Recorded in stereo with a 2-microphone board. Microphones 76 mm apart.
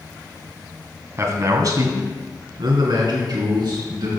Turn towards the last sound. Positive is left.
turn(degrees=-75)  # may be behind; listen again after turning